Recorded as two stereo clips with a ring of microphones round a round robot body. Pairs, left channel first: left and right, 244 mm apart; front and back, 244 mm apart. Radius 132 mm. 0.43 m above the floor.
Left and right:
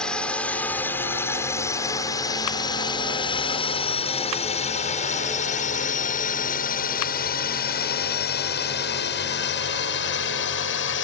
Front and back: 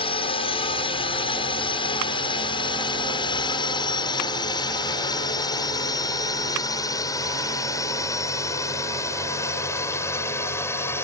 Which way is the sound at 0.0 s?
10° left.